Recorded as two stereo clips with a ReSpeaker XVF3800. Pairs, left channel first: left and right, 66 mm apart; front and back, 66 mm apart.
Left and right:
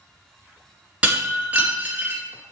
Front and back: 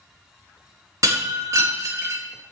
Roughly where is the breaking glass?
Behind right.